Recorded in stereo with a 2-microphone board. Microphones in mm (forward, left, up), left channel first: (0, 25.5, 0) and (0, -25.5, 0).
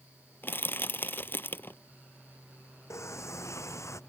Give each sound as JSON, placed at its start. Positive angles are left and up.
{"t": 0.4, "sound": "crushing", "side_deg": 45}
{"t": 2.9, "sound": "a sliding door", "side_deg": 75}